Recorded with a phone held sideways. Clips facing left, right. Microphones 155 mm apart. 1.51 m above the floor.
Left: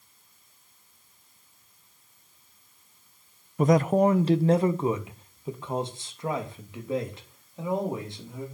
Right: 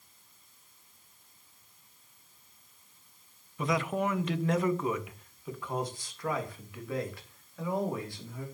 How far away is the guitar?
I don't hear a guitar.